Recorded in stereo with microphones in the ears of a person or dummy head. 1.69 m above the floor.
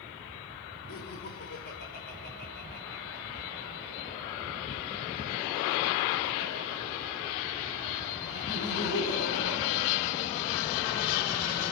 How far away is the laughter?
About 5 m.